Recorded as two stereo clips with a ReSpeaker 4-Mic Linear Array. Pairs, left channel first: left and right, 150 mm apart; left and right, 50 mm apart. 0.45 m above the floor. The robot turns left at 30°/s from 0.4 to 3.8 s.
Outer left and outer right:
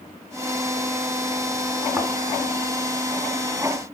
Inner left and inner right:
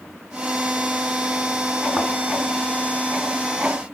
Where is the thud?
Centre (ahead or behind), 2 m.